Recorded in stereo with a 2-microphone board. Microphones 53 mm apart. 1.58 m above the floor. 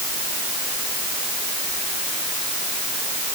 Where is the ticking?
I don't hear ticking.